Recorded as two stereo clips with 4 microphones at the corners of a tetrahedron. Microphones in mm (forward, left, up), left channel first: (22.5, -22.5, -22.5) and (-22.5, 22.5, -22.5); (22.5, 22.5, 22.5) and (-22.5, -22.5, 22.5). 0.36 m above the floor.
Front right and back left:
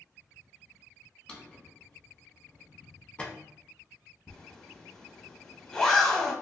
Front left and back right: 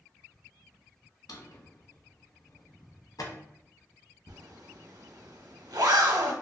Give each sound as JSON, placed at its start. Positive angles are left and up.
{"t": 1.3, "sound": "a drawer", "azimuth_deg": 25, "distance_m": 0.5}
{"t": 4.3, "sound": "a zipper", "azimuth_deg": -125, "distance_m": 0.5}